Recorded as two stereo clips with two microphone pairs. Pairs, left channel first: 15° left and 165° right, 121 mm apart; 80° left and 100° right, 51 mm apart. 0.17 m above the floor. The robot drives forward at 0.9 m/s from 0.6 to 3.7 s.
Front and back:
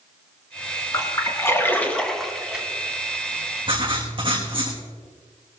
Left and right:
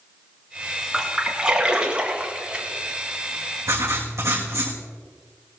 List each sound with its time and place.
0.9 s a splash: 30° right, 2 m; by 2.7 s 105° right, 1.7 m
3.7 s writing: 120° right, 3 m